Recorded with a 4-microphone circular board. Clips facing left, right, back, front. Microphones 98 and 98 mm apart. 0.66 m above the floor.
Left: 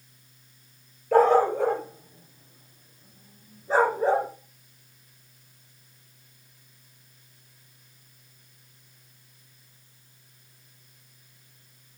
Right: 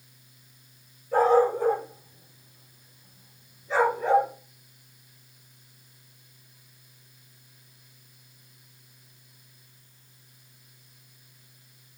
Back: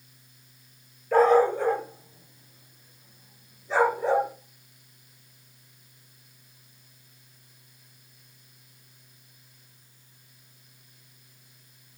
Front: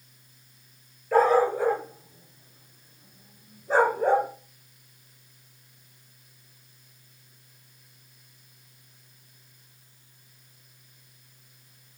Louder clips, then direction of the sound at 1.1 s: Left 1 dB, back 1 dB; 90° left.